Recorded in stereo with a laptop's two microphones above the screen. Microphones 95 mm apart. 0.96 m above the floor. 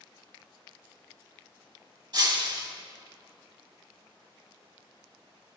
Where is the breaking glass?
50° right (ahead or behind), 2.5 m.